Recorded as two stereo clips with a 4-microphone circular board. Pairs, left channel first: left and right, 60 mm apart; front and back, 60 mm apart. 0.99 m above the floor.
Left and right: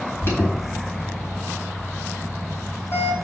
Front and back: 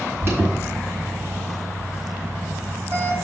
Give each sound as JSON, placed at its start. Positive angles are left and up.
{"t": 0.2, "sound": "an alarm", "azimuth_deg": 135, "distance_m": 4.5}